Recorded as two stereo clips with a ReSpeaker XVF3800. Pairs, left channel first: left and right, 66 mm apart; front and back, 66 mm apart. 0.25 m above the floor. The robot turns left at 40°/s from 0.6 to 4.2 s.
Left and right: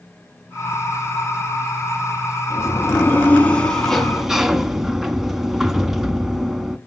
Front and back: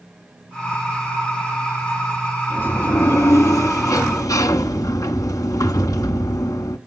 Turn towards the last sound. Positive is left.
turn(degrees=-5)